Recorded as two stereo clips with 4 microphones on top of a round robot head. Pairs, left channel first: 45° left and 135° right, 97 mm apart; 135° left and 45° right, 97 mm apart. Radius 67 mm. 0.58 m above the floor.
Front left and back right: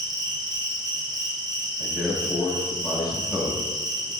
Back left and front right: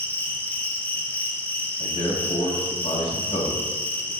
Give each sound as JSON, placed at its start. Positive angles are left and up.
{"t": 0.0, "sound": "an insect", "azimuth_deg": -160, "distance_m": 1.1}
{"t": 1.8, "sound": "a man speaking", "azimuth_deg": 150, "distance_m": 3.0}